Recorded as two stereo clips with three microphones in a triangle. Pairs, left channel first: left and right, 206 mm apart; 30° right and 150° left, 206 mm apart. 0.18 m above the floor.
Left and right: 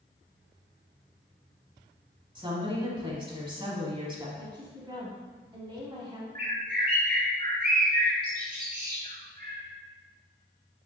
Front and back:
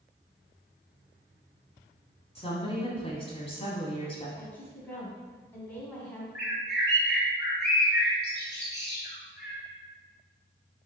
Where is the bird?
50° right, 1.8 m.